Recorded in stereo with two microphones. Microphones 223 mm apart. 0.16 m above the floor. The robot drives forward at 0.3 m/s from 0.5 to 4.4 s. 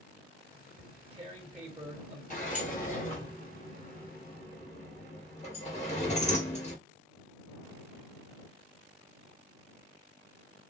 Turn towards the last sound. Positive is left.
turn(degrees=30)  # may be behind; listen again after turning